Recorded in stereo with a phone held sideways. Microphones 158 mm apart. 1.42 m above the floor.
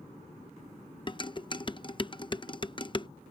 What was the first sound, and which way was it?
Dishes clattering, 30° left (ahead or behind).